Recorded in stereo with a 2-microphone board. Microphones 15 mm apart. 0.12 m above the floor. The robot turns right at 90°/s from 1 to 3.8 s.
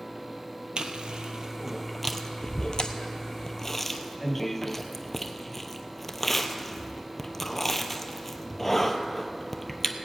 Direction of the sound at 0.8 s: 70° right (ahead or behind).